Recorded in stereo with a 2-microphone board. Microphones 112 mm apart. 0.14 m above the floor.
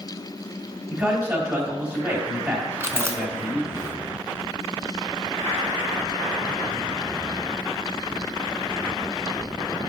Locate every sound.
0.9 s a man speaking: 10° right (ahead or behind), 3.5 m
2.8 s chewing: 25° right (ahead or behind), 0.8 m